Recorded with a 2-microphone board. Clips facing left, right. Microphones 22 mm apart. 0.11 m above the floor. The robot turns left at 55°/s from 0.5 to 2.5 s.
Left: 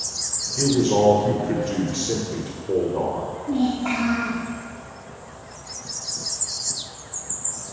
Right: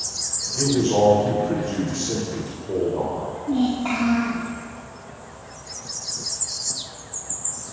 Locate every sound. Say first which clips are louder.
0.6 s a man speaking: even; 135° left, 1.6 m; by 3.3 s 30° left, 1.6 m
3.5 s a child speaking: right 1 dB; 25° right (ahead or behind), 2.5 m